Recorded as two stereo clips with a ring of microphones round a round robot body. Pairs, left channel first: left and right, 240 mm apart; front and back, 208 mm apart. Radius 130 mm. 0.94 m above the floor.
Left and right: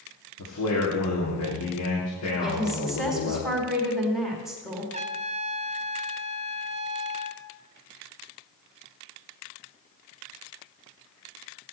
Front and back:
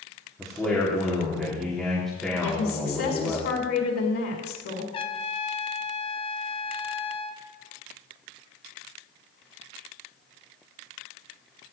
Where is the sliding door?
I don't hear a sliding door.